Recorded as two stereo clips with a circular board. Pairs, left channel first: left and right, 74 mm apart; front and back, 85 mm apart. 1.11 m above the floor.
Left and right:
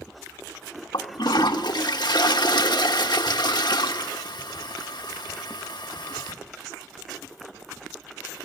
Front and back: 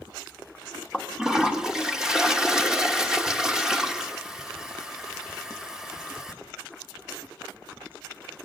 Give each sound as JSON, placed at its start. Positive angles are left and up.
{"t": 0.9, "sound": "a toilet flushing", "azimuth_deg": 95, "distance_m": 1.1}